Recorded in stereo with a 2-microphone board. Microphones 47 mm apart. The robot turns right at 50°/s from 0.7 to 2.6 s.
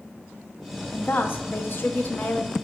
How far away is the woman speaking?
About 0.7 m.